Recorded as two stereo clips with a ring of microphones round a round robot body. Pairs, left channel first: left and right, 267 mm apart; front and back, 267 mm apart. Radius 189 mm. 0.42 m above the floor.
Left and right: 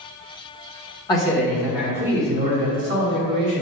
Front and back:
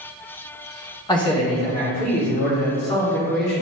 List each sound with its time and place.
1.1 s a man speaking: 45° left, 1.0 m; by 3.6 s 40° right, 1.6 m